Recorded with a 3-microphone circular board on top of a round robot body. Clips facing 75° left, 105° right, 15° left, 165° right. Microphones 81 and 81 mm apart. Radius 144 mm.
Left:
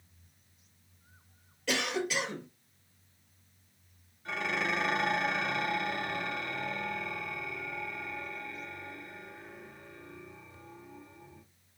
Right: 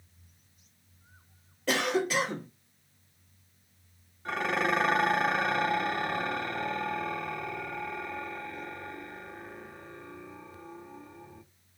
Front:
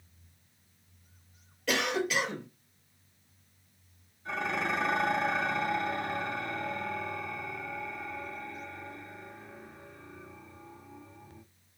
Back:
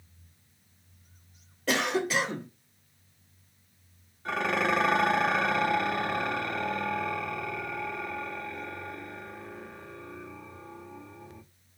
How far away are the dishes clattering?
About 1.1 m.